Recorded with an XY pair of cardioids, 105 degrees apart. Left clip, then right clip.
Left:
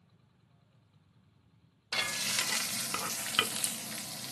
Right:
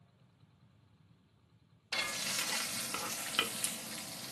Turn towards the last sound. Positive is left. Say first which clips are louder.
# left 4 dB
turn(degrees=35)